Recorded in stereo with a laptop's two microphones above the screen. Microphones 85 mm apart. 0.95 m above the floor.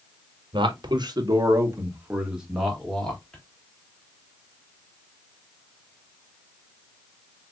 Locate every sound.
0.5 s a man speaking: 60° right (ahead or behind), 1.0 m; by 3.4 s 10° left (ahead or behind), 1.4 m